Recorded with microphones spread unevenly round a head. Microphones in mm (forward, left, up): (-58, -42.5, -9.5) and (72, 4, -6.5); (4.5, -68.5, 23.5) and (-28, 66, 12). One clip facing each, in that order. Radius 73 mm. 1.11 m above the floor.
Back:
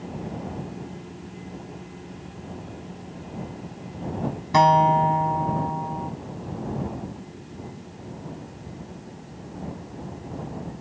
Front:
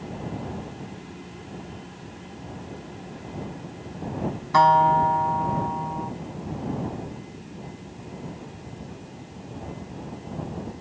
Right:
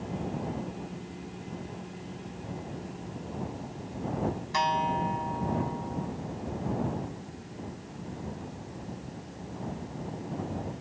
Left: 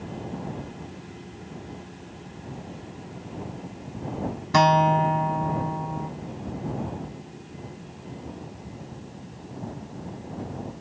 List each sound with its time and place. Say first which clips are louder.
4.5 s a guitar: even, left 11 dB; 130° left